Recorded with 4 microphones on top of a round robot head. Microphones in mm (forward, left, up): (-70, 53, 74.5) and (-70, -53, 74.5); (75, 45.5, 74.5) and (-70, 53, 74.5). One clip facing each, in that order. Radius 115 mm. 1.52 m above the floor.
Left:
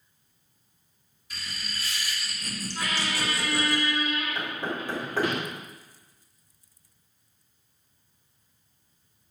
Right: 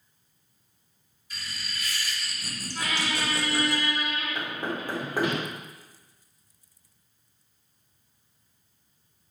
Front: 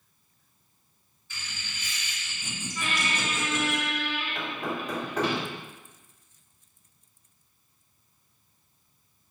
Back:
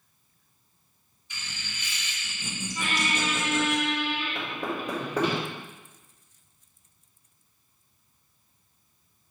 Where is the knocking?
165° right, 1.5 m.